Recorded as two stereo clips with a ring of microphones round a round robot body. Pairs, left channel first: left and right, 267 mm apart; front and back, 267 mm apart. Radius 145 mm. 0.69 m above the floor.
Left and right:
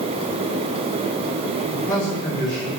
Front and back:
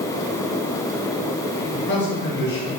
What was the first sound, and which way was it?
A man speaking, 35° left.